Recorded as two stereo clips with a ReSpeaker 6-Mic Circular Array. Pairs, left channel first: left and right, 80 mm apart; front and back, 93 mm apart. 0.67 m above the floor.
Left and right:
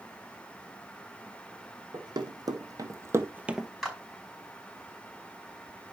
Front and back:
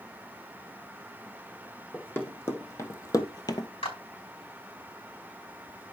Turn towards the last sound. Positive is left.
turn(degrees=0)